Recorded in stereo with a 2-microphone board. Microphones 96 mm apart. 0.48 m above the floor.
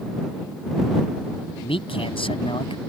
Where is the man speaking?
75° left (ahead or behind); by 2.8 s 70° left (ahead or behind).